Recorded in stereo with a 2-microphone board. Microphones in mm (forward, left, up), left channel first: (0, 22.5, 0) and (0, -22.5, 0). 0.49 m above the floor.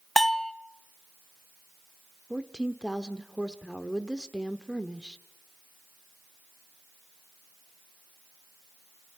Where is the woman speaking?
15° right (ahead or behind), 1.0 m.